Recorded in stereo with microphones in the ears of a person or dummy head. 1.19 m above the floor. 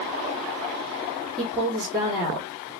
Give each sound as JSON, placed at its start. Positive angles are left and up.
{"t": 1.4, "sound": "a woman speaking", "side_deg": -10, "distance_m": 3.0}